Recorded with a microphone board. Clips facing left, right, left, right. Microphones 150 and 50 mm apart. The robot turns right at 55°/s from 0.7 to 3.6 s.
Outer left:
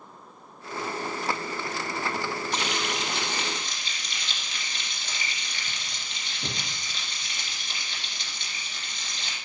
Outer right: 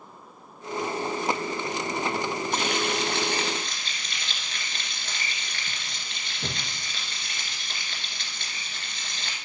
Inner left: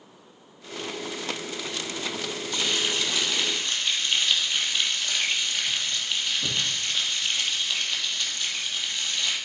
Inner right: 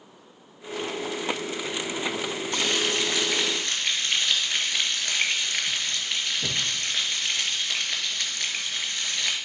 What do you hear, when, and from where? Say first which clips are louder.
2.5 s frying: outer right 3 dB, inner right 1 dB; 125° right, 2 m; by 9.3 s 65° right, 2 m